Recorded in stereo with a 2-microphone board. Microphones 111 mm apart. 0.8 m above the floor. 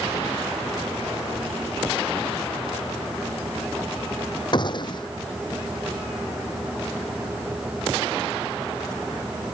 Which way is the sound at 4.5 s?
45° left (ahead or behind).